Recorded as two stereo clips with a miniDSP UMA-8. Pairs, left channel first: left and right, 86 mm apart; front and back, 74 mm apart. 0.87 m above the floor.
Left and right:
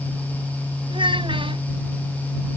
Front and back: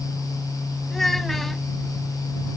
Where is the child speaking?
85° right.